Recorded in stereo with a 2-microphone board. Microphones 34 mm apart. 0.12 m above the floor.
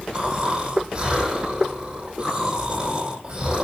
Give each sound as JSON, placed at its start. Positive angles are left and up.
{"t": 0.1, "sound": "snoring", "side_deg": -25, "distance_m": 6.0}